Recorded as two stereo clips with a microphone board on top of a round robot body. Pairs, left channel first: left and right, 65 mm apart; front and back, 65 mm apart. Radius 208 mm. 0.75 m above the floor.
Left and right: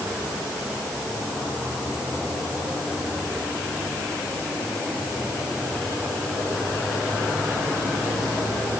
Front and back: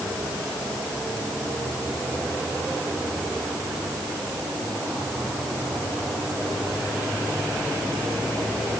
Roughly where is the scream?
I don't hear a scream.